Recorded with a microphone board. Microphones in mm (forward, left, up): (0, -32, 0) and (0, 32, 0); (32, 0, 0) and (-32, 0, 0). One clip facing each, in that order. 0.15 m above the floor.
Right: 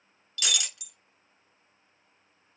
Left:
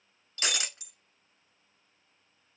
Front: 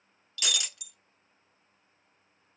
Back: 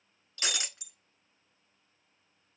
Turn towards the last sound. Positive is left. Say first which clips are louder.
# even, front 1 dB
turn(degrees=135)